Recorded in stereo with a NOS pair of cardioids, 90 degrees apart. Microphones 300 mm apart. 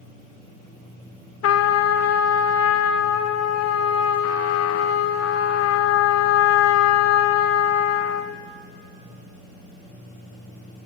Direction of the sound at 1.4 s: 55° left.